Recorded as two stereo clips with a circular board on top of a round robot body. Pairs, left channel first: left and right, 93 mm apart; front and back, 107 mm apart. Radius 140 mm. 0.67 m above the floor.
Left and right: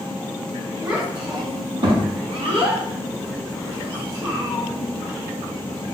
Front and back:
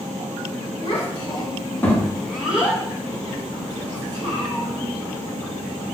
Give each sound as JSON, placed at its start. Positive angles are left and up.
{"t": 0.8, "sound": "a child speaking", "azimuth_deg": -40, "distance_m": 1.5}